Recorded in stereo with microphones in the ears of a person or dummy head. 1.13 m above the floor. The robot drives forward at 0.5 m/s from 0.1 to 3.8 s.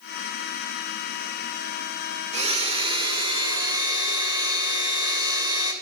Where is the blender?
40° right (ahead or behind), 1.6 m; by 5.7 s 25° right (ahead or behind), 2 m.